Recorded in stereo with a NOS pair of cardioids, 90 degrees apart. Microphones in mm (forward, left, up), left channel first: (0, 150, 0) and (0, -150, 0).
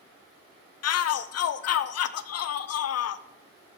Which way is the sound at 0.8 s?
60° left.